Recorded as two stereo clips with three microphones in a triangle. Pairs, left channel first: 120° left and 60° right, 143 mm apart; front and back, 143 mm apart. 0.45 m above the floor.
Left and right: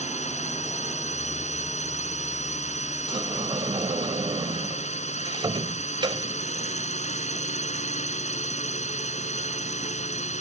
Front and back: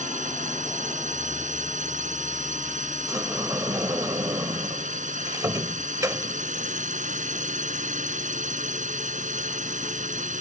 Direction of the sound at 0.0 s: 155° left.